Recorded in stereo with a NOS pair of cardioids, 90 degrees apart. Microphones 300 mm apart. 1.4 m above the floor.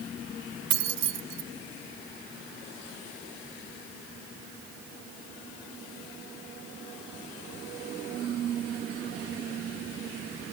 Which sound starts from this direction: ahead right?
Keys jangling, at 0.7 s.